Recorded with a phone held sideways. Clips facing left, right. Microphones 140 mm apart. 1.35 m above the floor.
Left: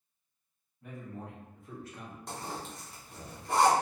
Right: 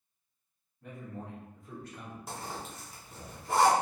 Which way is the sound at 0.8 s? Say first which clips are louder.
Even; centre (ahead or behind).